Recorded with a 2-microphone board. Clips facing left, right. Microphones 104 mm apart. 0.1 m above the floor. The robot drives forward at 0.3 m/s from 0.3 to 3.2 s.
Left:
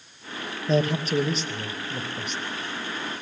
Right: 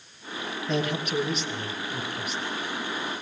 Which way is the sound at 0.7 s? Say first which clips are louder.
Left 5 dB; 35° left (ahead or behind).